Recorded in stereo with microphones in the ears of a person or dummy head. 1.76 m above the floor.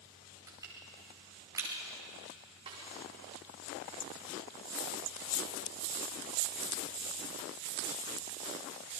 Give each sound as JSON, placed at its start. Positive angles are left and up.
{"t": 0.5, "sound": "crushing", "side_deg": -15, "distance_m": 5.0}
{"t": 2.7, "sound": "a snare drum", "side_deg": -25, "distance_m": 5.0}